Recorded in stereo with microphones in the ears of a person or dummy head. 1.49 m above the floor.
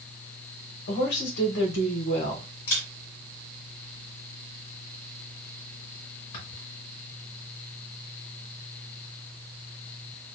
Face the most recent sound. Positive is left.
turn(degrees=40)  # may be behind; listen again after turning